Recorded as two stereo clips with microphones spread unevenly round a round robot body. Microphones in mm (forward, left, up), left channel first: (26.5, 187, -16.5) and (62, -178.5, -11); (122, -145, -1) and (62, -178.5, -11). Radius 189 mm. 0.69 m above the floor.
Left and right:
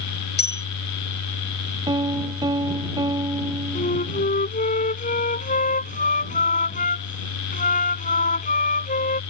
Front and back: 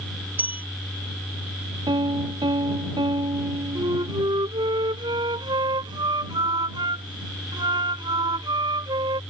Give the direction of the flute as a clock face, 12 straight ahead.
6 o'clock.